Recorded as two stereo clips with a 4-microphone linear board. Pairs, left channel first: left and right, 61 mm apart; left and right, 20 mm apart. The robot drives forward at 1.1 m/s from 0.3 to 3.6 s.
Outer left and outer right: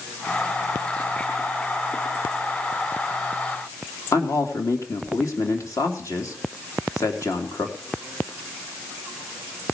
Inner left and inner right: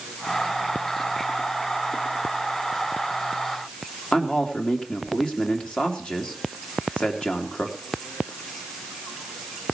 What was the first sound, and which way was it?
A man speaking, 60° left (ahead or behind).